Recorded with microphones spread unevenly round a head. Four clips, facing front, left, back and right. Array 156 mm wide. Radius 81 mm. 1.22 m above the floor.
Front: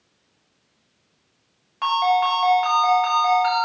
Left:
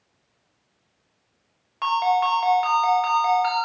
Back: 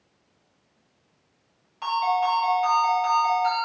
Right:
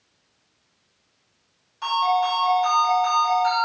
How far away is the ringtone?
About 1.1 m.